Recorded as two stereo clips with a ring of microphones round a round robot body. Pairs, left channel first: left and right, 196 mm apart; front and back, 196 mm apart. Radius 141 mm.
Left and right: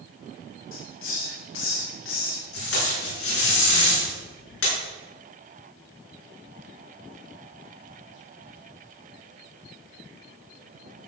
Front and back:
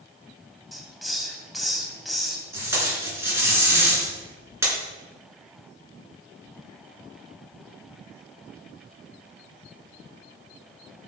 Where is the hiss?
90° left, 2.5 m.